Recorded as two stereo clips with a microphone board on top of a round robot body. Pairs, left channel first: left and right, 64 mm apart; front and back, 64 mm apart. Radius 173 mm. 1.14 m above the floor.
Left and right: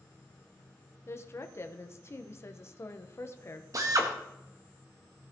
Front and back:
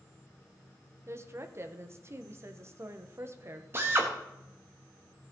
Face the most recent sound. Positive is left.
turn(degrees=-125)